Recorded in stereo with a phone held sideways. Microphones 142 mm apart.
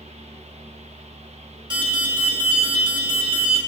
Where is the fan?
50° right (ahead or behind), 0.9 m.